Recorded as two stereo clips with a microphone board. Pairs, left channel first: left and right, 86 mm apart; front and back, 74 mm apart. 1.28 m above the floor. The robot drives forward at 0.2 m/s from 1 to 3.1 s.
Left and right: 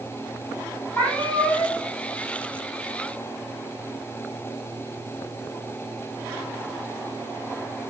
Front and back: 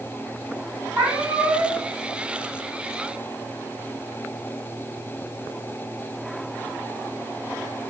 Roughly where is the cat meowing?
Behind left.